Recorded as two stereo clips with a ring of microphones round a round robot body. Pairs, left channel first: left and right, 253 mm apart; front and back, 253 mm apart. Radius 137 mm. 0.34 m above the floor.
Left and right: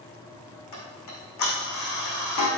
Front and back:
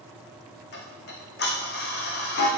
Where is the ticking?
55° left, 4 m.